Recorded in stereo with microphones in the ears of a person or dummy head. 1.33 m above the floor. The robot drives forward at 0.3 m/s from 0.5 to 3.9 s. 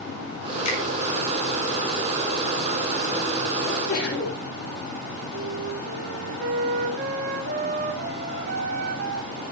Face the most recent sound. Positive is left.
turn(degrees=-50)  # may be behind; listen again after turning